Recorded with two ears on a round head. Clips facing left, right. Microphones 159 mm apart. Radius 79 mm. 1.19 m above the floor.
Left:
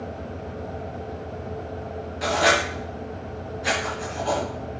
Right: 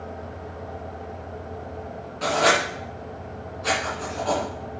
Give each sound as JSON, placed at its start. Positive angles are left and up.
{"t": 2.2, "sound": "writing", "side_deg": 10, "distance_m": 2.5}